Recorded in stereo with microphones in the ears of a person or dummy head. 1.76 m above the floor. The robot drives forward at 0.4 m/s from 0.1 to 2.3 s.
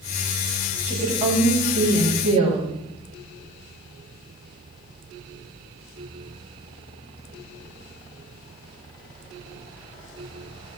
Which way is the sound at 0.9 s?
35° right (ahead or behind).